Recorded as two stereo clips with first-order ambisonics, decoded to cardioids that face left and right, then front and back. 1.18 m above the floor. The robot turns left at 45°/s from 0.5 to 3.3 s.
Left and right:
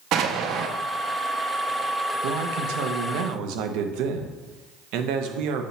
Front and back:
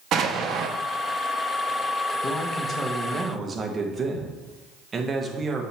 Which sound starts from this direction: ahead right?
A man speaking, at 2.2 s.